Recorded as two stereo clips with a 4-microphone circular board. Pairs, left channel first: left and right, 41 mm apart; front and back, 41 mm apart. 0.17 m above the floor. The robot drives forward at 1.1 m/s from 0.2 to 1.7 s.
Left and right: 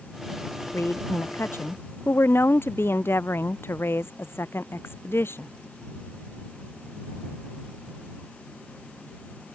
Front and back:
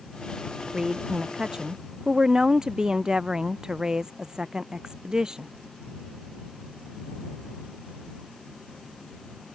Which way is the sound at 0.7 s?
100° left.